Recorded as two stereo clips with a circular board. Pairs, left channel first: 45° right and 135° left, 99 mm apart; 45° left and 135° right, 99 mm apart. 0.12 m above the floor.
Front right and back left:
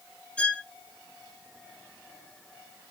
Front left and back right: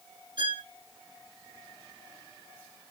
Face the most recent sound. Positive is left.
turn(degrees=-125)